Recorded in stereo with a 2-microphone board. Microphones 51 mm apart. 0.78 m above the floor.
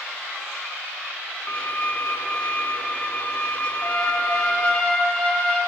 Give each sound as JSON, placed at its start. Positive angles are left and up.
{"t": 1.5, "sound": "a violin", "side_deg": 25, "distance_m": 0.6}
{"t": 3.8, "sound": "a trumpet", "side_deg": 20, "distance_m": 5.5}